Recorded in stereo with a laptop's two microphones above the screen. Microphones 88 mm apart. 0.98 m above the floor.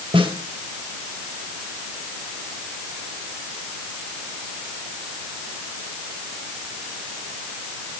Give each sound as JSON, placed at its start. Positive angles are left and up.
{"t": 0.1, "sound": "a snare drum", "side_deg": -80, "distance_m": 2.5}